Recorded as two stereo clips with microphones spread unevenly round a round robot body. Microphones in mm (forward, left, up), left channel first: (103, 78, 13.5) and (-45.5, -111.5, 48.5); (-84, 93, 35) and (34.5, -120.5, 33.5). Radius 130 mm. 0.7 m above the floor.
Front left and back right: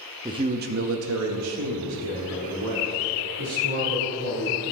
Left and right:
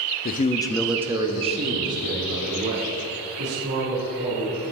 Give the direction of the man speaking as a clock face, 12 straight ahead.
7 o'clock.